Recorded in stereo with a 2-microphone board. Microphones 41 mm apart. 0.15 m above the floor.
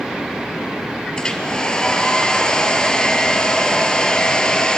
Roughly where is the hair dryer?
Centre.